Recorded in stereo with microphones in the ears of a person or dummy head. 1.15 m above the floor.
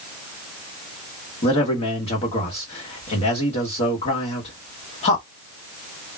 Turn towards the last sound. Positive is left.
turn(degrees=30)  # may be behind; listen again after turning